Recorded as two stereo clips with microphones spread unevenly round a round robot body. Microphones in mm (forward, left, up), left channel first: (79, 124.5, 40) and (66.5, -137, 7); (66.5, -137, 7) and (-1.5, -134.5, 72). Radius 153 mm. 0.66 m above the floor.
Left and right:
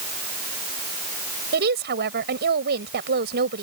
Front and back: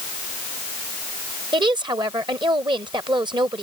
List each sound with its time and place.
1.5 s a woman speaking: 150° right